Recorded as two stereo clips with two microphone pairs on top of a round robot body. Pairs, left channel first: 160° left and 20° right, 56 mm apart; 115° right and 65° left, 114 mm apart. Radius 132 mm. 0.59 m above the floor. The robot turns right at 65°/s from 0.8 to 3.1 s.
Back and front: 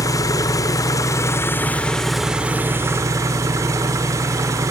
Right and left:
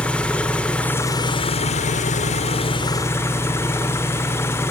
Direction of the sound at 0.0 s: 165° left.